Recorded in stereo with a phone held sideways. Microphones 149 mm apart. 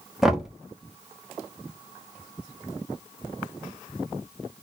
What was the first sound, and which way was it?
Knocking, centre (ahead or behind).